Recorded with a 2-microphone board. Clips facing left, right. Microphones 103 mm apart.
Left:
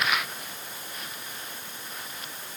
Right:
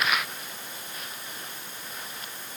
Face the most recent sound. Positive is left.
No sound to turn to.